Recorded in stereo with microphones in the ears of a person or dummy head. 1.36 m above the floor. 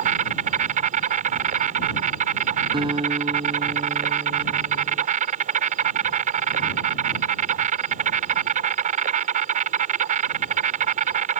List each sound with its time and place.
0.0 s an insect: 40° right (ahead or behind)
2.7 s a guitar: 25° right (ahead or behind)